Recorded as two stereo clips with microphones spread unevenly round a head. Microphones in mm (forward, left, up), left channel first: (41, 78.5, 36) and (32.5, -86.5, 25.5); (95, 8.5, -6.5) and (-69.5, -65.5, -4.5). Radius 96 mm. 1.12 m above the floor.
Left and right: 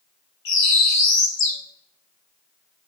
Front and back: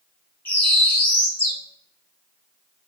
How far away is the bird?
About 3 m.